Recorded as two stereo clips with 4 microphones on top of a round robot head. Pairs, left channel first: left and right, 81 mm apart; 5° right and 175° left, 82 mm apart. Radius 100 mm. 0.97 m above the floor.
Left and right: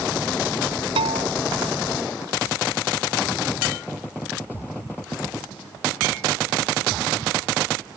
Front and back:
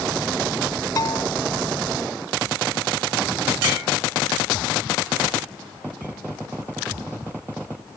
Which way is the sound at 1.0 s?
65° right.